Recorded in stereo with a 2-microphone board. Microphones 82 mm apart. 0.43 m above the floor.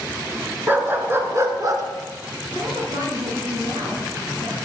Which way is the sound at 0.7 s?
25° right (ahead or behind).